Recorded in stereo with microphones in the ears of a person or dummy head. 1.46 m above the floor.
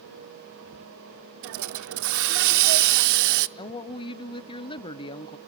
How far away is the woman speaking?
About 0.6 m.